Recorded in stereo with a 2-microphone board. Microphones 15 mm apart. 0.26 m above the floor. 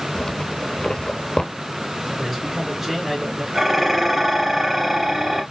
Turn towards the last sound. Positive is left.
turn(degrees=-20)  # may be behind; listen again after turning